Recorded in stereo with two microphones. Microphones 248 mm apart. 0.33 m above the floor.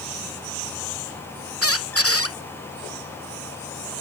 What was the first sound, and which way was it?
A squeak, 65° left (ahead or behind).